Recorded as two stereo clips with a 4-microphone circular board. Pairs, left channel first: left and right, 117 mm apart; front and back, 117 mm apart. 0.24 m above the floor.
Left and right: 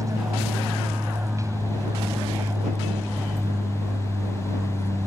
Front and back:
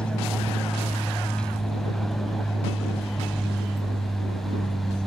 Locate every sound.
0.0 s an aircraft: 75° right